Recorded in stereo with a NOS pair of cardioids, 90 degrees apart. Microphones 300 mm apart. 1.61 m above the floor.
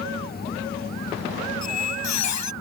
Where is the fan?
30° left.